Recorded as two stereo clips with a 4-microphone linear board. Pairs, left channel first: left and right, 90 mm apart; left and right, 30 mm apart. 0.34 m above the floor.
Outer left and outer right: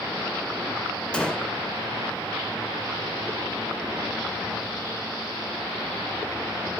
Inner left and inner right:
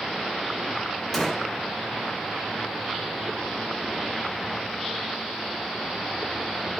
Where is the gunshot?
10° left (ahead or behind), 0.5 m.